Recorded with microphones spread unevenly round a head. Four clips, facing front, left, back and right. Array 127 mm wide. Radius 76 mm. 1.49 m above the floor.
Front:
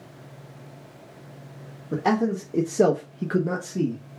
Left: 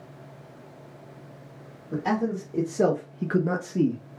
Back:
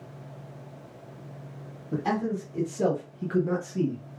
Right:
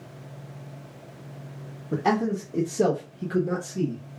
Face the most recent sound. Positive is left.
turn(degrees=70)